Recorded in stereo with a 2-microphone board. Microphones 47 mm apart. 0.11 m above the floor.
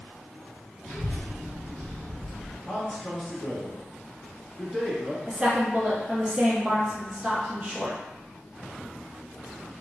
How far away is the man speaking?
About 1.2 m.